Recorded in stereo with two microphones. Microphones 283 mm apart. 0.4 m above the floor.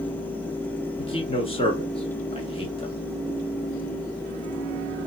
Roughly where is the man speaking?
Centre.